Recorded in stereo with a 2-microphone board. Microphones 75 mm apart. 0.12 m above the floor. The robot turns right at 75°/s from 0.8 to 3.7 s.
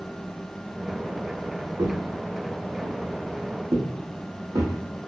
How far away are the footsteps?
About 0.7 m.